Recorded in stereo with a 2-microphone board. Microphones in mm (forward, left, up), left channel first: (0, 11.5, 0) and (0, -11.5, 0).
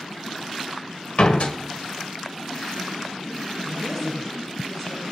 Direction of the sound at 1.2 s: 60° left (ahead or behind).